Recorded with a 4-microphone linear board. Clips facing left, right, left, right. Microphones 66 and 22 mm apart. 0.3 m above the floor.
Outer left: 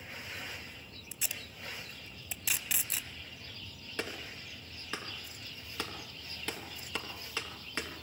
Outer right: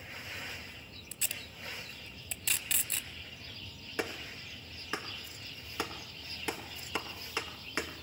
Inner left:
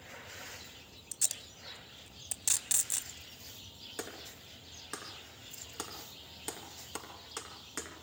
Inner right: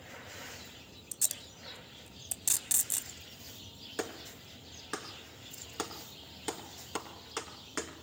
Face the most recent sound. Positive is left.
turn(degrees=-15)  # may be behind; listen again after turning